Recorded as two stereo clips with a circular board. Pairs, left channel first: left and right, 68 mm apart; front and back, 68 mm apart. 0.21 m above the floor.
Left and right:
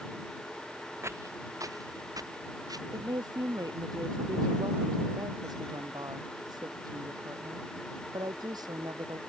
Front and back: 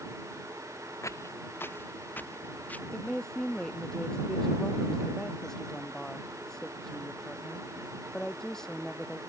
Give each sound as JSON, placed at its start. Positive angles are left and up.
{"t": 1.0, "sound": "footsteps", "azimuth_deg": -40}
{"t": 2.9, "sound": "a woman speaking", "azimuth_deg": -85}